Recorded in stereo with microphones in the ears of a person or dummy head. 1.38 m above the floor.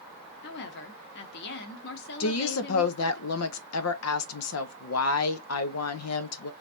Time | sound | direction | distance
0.4 | a woman speaking | 55° left (ahead or behind) | 1.0 m
2.2 | a woman speaking | 70° left (ahead or behind) | 0.7 m